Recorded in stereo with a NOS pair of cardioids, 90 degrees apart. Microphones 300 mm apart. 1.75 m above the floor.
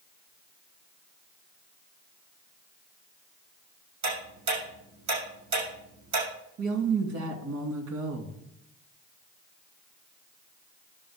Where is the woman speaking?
70° right, 3 m.